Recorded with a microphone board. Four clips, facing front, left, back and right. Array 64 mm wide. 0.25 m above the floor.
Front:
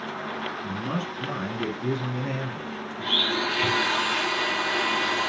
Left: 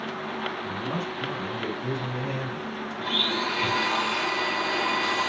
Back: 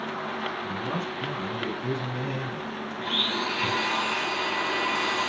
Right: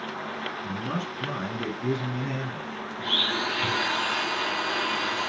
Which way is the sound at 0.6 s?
45° right.